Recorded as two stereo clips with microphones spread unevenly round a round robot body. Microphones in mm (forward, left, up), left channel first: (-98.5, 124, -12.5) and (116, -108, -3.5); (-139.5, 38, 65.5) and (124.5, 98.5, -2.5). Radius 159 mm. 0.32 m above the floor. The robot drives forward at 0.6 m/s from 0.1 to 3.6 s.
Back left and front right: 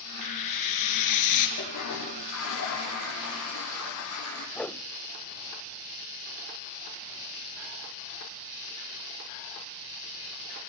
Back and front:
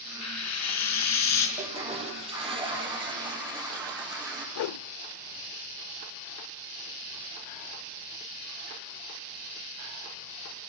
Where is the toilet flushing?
80° left, 7.5 m; by 4.5 s 90° left, 7.5 m.